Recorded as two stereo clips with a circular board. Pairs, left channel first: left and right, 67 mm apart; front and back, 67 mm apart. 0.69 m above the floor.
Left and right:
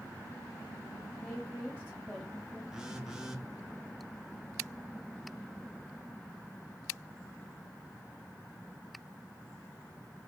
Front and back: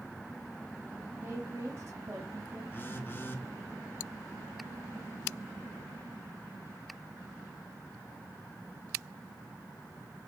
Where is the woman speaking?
170° right, 1.2 m.